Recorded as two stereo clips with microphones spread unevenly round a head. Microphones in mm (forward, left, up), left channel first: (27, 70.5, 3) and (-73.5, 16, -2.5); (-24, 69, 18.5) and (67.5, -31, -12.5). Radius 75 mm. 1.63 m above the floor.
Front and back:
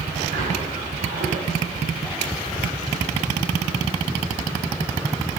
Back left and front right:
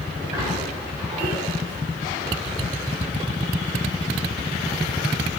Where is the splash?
120° right, 6.5 m.